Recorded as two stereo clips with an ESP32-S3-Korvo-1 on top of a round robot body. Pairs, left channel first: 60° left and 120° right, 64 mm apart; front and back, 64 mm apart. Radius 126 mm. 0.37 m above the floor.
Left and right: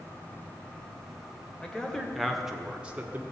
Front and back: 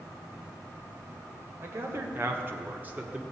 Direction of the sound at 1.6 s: 135° left.